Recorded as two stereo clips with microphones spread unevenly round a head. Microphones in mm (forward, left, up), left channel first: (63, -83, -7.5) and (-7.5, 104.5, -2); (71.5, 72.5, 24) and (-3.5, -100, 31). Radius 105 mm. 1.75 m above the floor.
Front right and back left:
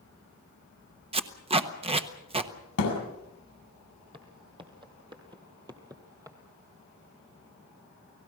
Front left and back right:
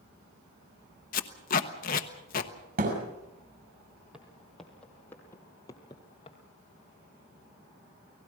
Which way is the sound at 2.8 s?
80° right.